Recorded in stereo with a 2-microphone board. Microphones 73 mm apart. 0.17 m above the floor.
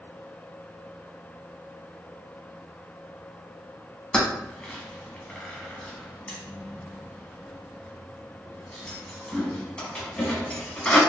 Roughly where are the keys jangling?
Centre.